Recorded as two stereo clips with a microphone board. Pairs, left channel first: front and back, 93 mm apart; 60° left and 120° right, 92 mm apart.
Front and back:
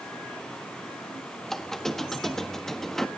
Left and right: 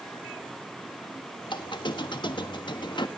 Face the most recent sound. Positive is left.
turn(degrees=85)